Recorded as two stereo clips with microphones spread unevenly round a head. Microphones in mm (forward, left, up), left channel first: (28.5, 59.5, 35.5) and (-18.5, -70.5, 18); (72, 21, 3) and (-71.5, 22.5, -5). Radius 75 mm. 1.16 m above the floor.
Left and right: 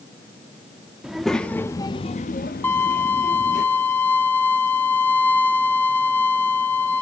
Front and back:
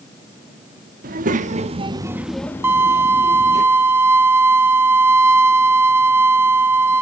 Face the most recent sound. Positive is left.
turn(degrees=115)